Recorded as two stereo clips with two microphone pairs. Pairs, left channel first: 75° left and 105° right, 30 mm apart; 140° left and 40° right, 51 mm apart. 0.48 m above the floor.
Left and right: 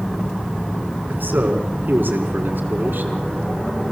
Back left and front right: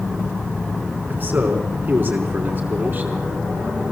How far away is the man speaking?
About 4.5 m.